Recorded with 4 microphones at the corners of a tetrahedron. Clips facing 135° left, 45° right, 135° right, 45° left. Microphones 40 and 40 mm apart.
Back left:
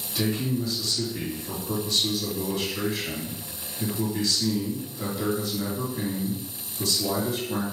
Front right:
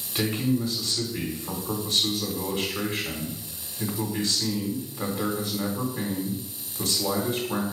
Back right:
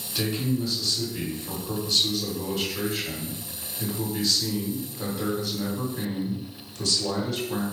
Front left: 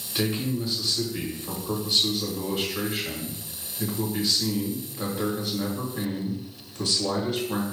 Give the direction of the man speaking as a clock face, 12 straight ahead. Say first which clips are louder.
Front right 2 dB, even; 12 o'clock.